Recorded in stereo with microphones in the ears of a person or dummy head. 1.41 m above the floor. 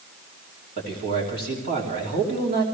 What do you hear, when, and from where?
0.8 s a man speaking: 45° right (ahead or behind), 3 m